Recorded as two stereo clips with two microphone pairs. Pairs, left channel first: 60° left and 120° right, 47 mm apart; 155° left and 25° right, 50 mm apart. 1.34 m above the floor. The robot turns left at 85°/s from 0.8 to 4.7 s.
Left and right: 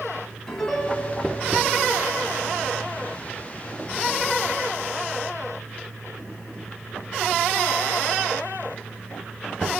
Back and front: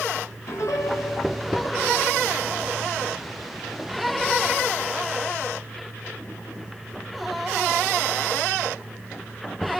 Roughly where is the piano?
Behind left.